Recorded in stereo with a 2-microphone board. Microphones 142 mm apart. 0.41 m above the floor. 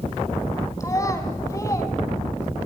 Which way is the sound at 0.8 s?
25° left (ahead or behind).